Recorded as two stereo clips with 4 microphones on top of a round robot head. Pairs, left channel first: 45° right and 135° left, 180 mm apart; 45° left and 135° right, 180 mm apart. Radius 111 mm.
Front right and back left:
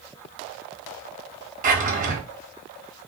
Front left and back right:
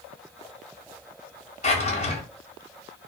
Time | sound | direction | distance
1.6 | a drawer | 95° left | 0.8 m